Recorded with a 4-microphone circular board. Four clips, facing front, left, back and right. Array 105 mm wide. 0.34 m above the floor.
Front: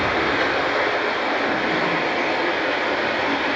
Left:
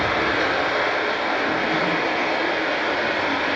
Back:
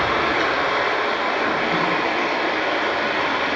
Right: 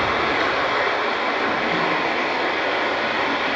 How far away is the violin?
I don't hear a violin.